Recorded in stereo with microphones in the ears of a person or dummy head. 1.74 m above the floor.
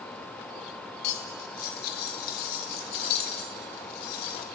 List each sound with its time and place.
1.0 s cutlery clinking: 55° left (ahead or behind), 1.5 m